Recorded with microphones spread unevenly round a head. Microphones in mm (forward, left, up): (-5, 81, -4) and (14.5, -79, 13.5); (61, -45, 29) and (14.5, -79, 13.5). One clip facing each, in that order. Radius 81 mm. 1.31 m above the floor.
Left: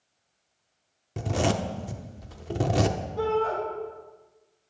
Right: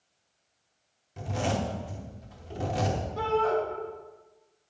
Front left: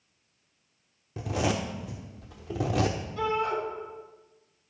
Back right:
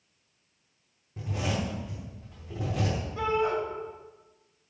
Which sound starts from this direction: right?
A shout, at 3.2 s.